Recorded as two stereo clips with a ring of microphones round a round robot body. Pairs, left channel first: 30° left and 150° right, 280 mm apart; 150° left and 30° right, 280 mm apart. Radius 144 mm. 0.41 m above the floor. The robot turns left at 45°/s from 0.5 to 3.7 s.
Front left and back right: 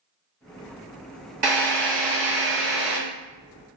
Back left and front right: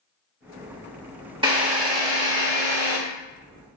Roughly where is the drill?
Right.